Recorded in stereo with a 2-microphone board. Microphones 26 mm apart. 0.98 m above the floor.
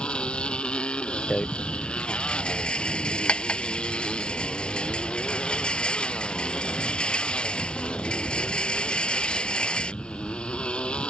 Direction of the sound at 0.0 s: 45° left (ahead or behind).